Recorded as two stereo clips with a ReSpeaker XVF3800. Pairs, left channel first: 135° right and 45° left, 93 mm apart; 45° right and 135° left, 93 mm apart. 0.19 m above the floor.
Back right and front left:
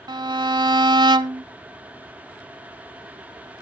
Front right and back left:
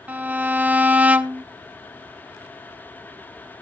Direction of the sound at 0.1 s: 65° left.